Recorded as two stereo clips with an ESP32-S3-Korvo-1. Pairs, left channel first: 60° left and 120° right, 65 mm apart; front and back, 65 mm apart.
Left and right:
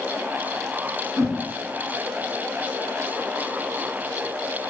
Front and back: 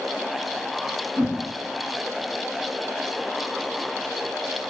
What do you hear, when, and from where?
1.2 s a whoosh: 145° right, 1.0 m